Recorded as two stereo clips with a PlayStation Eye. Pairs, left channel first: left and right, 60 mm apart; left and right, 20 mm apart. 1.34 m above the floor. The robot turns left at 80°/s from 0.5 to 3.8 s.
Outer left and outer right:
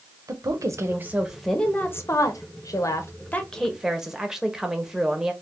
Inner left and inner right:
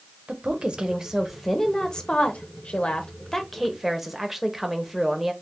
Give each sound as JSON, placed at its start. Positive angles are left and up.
{"t": 0.3, "sound": "a woman speaking", "azimuth_deg": -105, "distance_m": 0.7}